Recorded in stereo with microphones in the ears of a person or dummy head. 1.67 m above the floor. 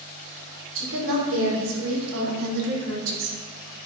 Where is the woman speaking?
80° right, 5 m; by 3.4 s 70° right (ahead or behind), 1.8 m.